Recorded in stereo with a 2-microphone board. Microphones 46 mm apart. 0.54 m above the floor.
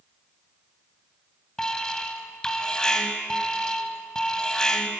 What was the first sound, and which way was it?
An alarm, 15° left (ahead or behind).